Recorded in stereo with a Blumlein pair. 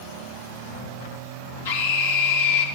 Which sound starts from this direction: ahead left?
A scream, at 1.6 s.